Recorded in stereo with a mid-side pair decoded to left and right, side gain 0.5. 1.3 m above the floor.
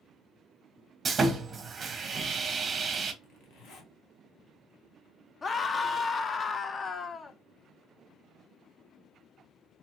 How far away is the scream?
About 0.5 m.